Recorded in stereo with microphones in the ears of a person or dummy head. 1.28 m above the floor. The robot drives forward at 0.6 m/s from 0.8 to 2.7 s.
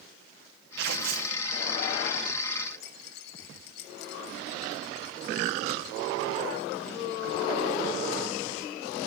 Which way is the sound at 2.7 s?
65° left (ahead or behind).